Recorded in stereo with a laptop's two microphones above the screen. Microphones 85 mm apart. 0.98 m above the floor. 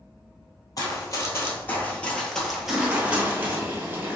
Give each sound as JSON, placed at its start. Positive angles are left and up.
{"t": 0.8, "sound": "running footsteps", "side_deg": 45, "distance_m": 1.5}
{"t": 2.6, "sound": "a toilet flushing", "side_deg": -25, "distance_m": 0.9}